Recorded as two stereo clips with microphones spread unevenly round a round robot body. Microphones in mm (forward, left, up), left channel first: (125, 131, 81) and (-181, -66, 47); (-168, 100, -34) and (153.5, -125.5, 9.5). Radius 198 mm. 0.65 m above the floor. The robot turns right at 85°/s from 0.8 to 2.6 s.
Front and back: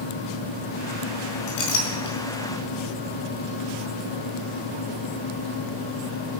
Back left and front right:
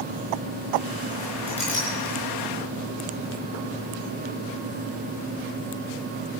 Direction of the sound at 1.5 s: 40° left.